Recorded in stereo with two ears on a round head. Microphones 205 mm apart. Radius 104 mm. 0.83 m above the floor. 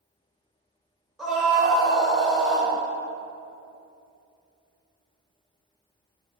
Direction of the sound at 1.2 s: Centre (ahead or behind).